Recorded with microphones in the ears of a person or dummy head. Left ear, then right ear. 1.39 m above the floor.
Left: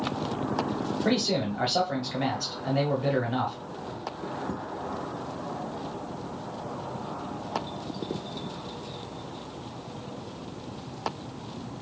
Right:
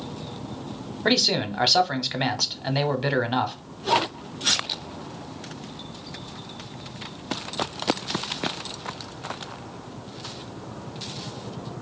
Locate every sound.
1.1 s a man speaking: 45° right (ahead or behind), 0.7 m